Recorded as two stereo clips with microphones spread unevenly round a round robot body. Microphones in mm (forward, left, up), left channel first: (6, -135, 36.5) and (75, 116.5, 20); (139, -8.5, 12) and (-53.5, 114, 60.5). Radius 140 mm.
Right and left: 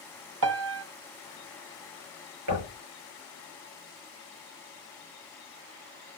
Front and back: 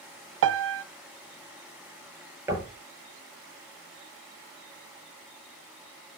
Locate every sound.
0.4 s a piano: 120° left, 0.6 m
2.5 s knocking: 70° left, 6.5 m